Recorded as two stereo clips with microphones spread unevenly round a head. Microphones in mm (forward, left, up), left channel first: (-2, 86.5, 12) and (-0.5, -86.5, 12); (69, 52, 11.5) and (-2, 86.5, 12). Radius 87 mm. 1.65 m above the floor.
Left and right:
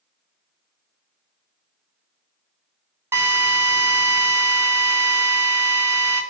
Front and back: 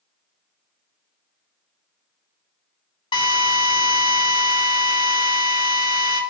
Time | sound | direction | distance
3.1 | a drill | 10° right | 4 m